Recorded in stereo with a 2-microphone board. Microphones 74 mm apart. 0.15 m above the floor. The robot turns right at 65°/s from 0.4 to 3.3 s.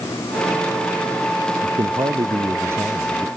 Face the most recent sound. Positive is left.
turn(degrees=0)